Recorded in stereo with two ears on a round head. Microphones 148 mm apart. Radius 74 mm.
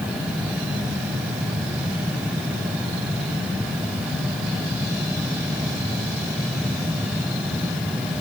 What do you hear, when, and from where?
Only background noise.